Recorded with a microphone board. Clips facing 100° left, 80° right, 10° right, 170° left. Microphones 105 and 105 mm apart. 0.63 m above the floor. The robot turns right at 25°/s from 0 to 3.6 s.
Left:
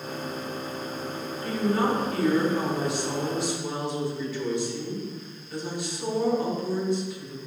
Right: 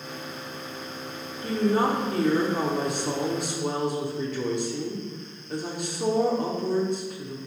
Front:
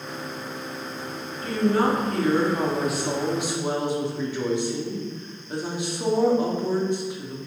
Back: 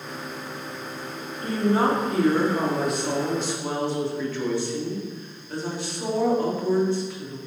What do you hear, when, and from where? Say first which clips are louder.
1.4 s a woman speaking: right 2 dB, even; 135° right, 1.6 m; by 7.4 s 80° right, 1.6 m